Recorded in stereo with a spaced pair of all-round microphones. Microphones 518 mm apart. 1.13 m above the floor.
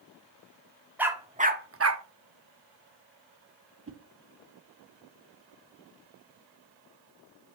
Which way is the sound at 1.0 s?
5° right (ahead or behind).